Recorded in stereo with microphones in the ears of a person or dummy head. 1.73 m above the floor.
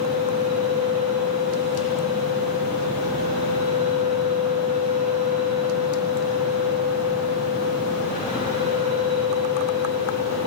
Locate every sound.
0.0 s a fan: 35° right (ahead or behind), 9.5 m